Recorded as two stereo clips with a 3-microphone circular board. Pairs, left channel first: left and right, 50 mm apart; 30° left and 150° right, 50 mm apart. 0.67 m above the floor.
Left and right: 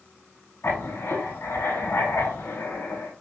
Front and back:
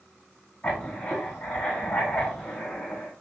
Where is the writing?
100° left, 3 m.